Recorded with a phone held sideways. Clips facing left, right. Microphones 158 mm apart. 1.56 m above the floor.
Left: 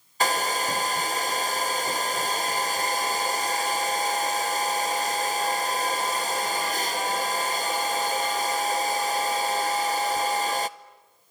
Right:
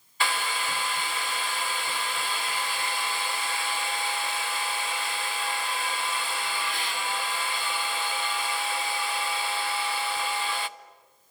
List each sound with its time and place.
0.2 s a hair dryer: 40° left (ahead or behind), 0.6 m